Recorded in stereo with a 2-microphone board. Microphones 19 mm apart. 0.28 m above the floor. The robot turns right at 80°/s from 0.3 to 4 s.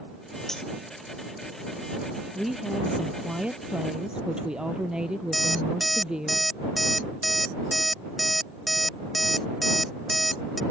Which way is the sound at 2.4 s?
Straight behind.